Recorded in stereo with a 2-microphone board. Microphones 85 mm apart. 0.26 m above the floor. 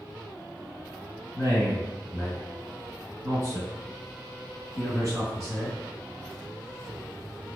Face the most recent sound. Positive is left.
turn(degrees=-40)  # may be behind; listen again after turning